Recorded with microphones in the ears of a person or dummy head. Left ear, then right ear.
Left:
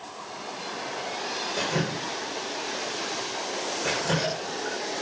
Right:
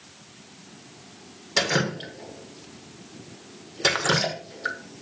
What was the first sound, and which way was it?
Dripping, 70° right (ahead or behind).